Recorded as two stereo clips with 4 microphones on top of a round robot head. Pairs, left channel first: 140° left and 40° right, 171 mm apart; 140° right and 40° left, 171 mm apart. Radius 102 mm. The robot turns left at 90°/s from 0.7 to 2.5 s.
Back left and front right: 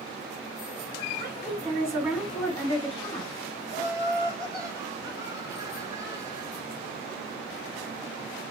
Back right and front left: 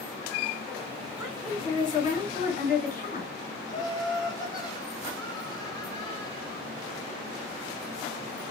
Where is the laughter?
95° right, 1.4 m.